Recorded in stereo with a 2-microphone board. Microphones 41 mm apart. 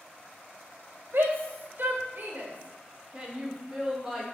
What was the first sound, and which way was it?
A shout, 60° right (ahead or behind).